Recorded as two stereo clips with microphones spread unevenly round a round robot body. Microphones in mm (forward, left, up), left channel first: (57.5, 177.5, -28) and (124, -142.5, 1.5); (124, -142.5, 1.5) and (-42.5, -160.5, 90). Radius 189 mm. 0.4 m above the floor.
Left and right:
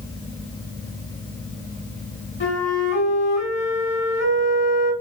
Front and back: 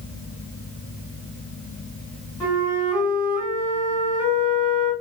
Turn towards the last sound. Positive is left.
turn(degrees=70)